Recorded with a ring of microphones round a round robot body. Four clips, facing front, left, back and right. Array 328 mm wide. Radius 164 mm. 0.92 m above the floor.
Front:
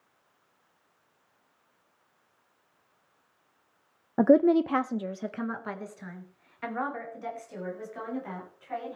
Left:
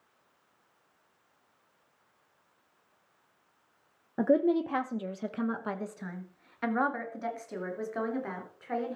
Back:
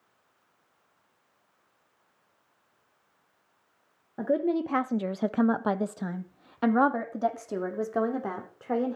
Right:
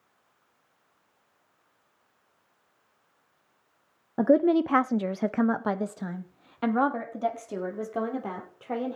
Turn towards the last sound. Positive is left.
turn(degrees=-160)